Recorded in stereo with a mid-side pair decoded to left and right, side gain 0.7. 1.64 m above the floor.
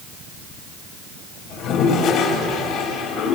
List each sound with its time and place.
1.5 s a toilet flushing: 65° left, 4 m